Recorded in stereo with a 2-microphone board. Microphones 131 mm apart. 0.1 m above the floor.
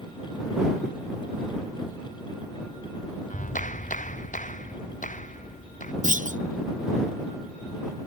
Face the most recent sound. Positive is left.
turn(degrees=-70)  # may be behind; listen again after turning